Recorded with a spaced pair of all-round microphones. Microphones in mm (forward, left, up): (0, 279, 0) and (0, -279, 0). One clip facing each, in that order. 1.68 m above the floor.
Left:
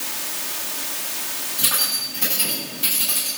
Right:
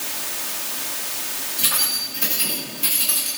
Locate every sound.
1.6 s keys jangling: 5° left (ahead or behind), 8.5 m; by 3.3 s 15° left (ahead or behind), 8.5 m